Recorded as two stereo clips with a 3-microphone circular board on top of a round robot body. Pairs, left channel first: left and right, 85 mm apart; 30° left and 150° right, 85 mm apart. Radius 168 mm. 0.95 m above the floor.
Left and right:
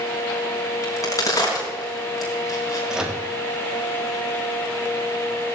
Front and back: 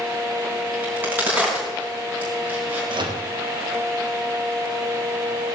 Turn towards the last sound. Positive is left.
turn(degrees=-170)